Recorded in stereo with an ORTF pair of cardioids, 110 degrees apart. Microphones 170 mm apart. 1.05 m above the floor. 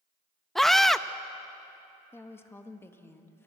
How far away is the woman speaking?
About 1.5 m.